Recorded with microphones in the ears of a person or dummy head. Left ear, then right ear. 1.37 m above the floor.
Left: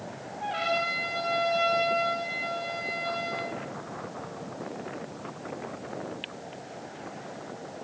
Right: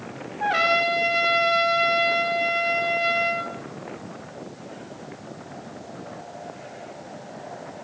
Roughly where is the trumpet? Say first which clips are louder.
Right 8 dB; right.